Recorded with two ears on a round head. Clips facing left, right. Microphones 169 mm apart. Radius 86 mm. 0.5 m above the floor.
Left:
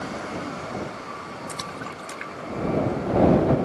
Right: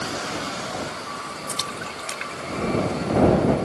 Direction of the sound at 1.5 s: 45° right (ahead or behind).